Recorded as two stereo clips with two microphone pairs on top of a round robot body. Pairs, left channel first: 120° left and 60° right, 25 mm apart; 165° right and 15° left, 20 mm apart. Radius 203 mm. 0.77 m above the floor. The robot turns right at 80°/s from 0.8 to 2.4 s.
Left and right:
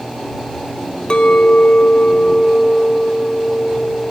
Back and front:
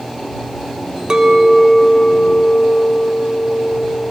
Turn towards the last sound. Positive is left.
turn(degrees=175)